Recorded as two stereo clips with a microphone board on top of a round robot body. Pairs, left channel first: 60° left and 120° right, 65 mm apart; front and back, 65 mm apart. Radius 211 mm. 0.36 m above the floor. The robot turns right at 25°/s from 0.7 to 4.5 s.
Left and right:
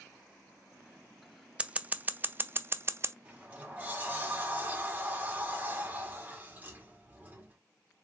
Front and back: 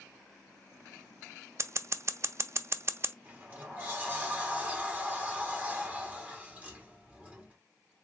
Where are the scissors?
175° left, 0.6 m; by 3.1 s 145° right, 0.6 m.